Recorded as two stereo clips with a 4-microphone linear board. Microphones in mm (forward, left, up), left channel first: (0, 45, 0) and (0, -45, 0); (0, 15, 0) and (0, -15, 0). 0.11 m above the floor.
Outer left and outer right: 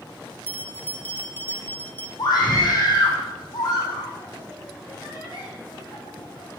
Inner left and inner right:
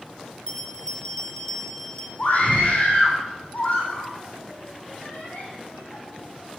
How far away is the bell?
About 1.2 m.